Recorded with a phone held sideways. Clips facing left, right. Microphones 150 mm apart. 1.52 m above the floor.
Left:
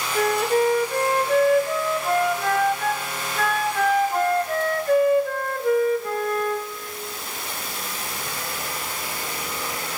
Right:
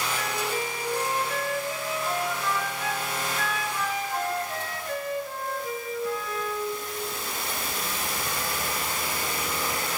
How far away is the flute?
About 1.0 m.